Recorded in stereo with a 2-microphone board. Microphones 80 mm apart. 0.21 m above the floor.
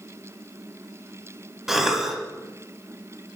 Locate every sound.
1.7 s a cough: 5° right (ahead or behind), 1.1 m